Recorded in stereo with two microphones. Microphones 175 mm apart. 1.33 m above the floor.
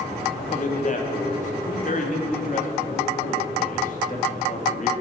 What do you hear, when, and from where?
0.4 s a man speaking: 45° left (ahead or behind), 2 m